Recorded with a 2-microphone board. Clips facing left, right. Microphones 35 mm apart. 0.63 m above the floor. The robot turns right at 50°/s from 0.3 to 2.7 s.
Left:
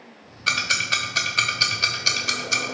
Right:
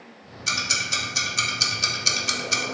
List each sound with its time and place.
0.5 s ticking: 30° left (ahead or behind), 0.6 m; by 2.6 s centre (ahead or behind), 0.6 m